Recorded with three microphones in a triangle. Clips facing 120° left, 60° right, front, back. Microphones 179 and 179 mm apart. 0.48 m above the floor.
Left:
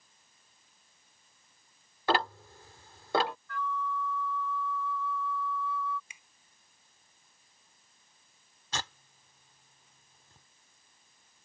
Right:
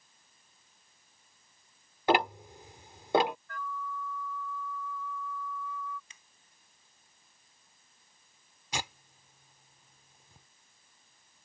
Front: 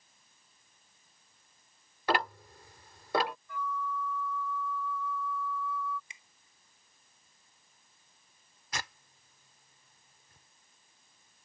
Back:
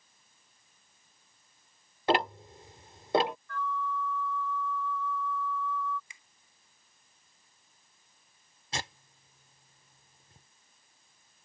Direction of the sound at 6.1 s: 50° left.